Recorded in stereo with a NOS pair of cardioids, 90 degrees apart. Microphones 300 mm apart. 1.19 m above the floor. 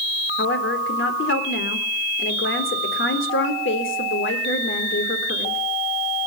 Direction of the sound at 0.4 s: 40° left.